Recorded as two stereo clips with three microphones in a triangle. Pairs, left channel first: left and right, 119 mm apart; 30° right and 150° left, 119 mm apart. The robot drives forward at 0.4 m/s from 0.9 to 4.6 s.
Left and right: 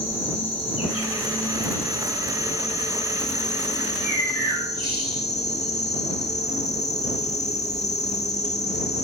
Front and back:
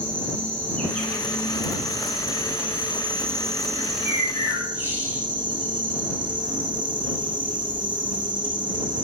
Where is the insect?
50° left, 1.8 m; by 9.0 s 105° left, 1.4 m.